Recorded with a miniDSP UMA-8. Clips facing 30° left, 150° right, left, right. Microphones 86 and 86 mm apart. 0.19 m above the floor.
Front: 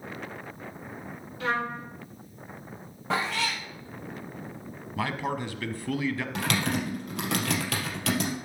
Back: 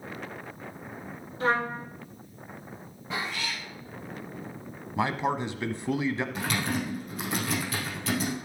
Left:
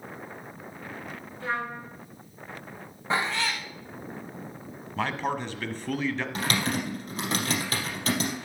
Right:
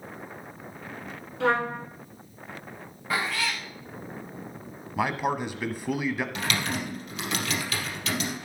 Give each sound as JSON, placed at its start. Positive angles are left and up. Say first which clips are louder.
{"t": 1.4, "sound": "a trumpet", "louder": "back 3 dB, right 7 dB", "azimuth_deg": -90, "distance_m": 2.0}
{"t": 3.1, "sound": "a cat meowing", "louder": "front 5 dB, left 1 dB", "azimuth_deg": 25, "distance_m": 2.0}
{"t": 5.0, "sound": "a man speaking", "louder": "back 3 dB, right 2 dB", "azimuth_deg": -150, "distance_m": 1.0}
{"t": 6.3, "sound": "typing on a keyboard", "louder": "front 2 dB, left 1 dB", "azimuth_deg": 40, "distance_m": 3.0}